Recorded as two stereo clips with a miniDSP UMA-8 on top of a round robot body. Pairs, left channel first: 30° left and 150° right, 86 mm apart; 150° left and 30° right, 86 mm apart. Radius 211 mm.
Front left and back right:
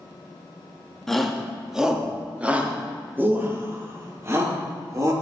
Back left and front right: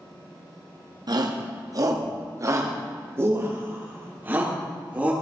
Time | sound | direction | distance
1.1 | a shout | 55° right | 2 m